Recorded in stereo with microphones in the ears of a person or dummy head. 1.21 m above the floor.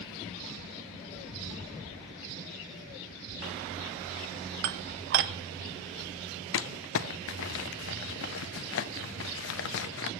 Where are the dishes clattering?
55° right (ahead or behind), 0.5 m.